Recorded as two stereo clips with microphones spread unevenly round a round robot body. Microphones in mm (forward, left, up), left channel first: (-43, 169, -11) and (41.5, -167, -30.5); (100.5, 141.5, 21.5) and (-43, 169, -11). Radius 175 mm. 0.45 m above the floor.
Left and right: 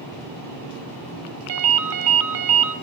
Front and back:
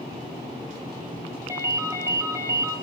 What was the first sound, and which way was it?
A ringtone, 120° right.